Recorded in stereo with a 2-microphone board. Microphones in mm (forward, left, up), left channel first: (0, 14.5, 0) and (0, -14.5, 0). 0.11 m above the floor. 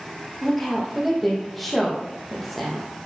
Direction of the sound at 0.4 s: Centre (ahead or behind).